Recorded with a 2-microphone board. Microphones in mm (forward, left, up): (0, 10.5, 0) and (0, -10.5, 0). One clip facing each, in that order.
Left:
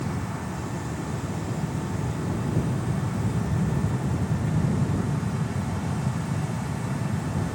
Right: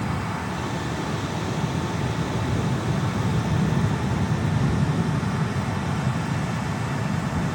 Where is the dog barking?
I don't hear a dog barking.